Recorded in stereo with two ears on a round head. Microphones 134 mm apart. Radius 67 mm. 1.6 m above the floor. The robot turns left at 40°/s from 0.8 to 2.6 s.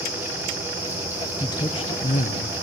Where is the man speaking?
155° left, 0.9 m; by 2.5 s 110° left, 0.9 m.